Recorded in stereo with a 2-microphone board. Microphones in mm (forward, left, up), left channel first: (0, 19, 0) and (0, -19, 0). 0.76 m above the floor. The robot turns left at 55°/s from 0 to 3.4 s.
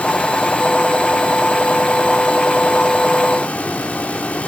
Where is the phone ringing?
I don't hear a phone ringing.